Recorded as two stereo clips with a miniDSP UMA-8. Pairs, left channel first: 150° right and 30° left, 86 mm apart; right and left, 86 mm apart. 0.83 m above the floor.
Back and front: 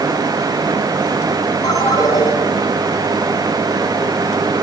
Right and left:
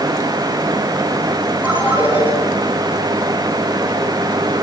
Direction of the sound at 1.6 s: 165° left.